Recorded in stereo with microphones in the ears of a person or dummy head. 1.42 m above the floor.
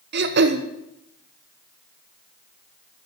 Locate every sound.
0.1 s throat clearing: 55° right (ahead or behind), 0.9 m